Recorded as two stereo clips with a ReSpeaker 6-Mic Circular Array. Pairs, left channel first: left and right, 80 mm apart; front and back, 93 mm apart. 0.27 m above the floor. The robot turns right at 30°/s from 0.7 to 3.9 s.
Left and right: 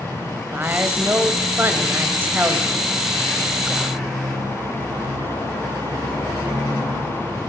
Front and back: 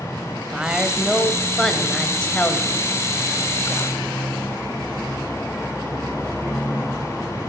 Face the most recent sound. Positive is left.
turn(degrees=-15)